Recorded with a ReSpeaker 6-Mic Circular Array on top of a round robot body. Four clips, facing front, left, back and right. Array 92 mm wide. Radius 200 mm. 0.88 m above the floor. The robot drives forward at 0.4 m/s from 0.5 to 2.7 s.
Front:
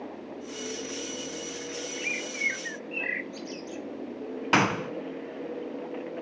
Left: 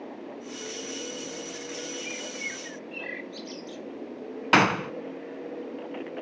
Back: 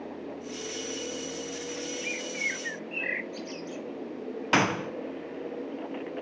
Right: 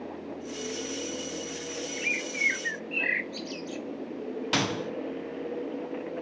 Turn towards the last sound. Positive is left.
turn(degrees=85)